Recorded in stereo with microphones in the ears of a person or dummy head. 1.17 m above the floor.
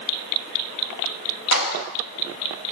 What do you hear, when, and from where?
1.5 s a clap: 75° left (ahead or behind), 6 m